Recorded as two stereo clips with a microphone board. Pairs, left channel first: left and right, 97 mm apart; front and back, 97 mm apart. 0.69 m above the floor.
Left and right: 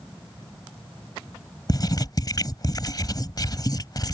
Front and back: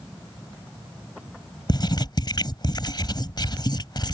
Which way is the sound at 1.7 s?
40° left.